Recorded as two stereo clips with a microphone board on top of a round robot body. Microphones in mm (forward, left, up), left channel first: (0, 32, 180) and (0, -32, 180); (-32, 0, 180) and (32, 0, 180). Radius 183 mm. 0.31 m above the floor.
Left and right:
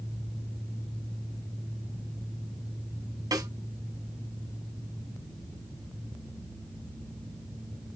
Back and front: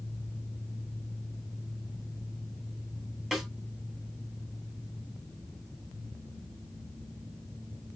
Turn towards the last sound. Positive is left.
turn(degrees=-80)